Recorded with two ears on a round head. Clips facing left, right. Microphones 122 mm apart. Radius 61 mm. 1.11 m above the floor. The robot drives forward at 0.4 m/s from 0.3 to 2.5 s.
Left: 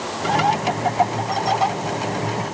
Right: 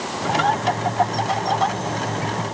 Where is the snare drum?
No snare drum in this recording.